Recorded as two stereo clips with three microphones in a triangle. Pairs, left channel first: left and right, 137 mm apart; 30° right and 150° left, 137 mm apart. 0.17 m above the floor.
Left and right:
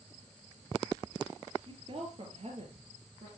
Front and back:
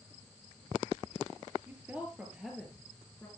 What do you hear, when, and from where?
1.7 s a woman speaking: 135° right, 3.5 m; by 3.3 s 105° right, 3.5 m